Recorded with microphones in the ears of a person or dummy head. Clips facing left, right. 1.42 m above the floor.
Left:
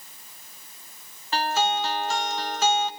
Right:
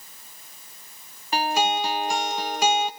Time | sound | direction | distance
1.3 | a guitar | 15° right (ahead or behind) | 0.7 m